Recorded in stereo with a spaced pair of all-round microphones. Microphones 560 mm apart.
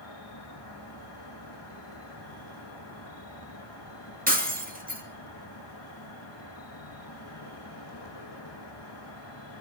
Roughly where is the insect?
Left.